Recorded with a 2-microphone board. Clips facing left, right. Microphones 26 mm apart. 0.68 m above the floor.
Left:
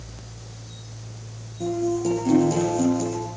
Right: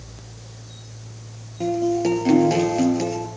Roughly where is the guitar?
Right.